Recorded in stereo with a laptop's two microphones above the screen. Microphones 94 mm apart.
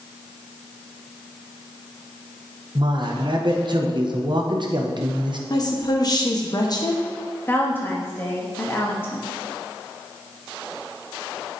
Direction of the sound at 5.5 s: 40° left (ahead or behind).